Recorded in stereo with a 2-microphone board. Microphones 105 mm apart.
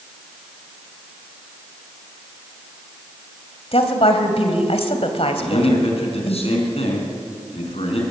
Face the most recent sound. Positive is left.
turn(degrees=70)  # may be behind; listen again after turning